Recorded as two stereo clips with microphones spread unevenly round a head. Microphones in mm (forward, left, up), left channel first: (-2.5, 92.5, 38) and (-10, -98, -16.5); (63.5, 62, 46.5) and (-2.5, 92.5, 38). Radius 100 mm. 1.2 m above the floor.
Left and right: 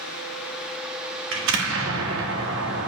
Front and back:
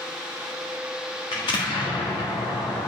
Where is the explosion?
65° right, 1.6 m.